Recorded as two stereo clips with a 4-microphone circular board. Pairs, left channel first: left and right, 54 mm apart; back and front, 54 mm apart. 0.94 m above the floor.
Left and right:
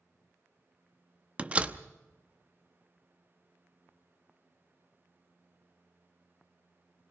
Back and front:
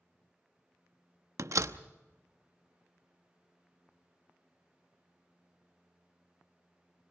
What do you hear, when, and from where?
1.4 s a door slam: 25° right, 0.8 m